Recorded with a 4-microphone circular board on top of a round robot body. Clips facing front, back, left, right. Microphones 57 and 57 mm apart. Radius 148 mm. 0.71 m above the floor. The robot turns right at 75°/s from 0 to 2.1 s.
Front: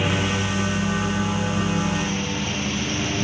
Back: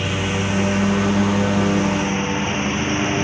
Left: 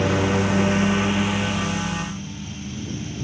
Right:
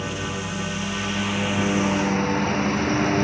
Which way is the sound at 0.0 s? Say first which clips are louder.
Back 1 dB, left 8 dB; 80° left.